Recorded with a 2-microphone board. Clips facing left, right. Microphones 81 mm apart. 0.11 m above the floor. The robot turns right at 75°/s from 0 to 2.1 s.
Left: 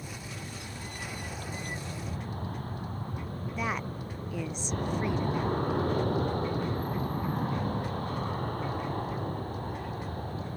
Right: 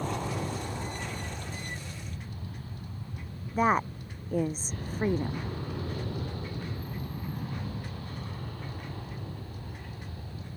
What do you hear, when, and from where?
0.0 s an aircraft: 95° right; by 10.6 s 60° left
3.5 s a woman speaking: 40° right (ahead or behind)